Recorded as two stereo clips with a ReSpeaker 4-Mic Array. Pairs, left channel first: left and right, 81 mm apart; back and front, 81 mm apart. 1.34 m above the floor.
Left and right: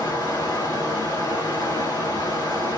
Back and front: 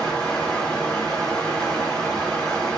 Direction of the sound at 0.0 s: 100° left.